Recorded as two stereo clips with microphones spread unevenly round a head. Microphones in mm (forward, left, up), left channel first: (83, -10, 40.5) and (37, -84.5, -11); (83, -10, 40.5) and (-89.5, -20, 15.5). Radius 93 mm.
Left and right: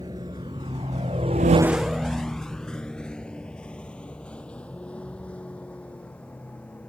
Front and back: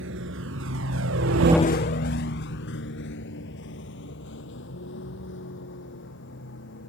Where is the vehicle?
165° left; by 6.9 s 15° right.